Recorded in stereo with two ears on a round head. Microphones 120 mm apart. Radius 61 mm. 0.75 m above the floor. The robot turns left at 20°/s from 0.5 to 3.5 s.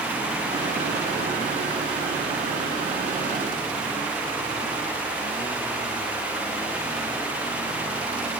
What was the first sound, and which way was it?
Only background noise.